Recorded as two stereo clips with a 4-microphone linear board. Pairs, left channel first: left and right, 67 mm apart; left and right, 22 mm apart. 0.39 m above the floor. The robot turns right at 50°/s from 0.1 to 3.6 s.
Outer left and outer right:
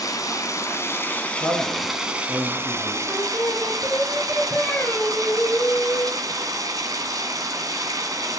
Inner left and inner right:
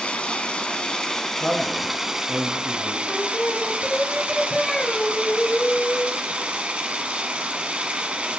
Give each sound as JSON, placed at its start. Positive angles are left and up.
{"t": 0.0, "sound": "running water", "azimuth_deg": 95, "distance_m": 2.5}
{"t": 1.4, "sound": "a man speaking", "azimuth_deg": 120, "distance_m": 5.0}
{"t": 3.1, "sound": "singing", "side_deg": 50, "distance_m": 1.2}